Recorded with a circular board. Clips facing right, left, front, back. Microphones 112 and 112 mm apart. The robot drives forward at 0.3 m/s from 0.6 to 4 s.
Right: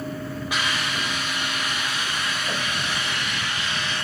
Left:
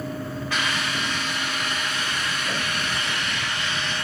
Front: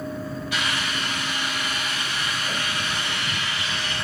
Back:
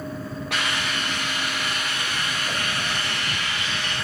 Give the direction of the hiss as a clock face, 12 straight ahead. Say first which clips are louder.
Even, back 2 dB; 6 o'clock.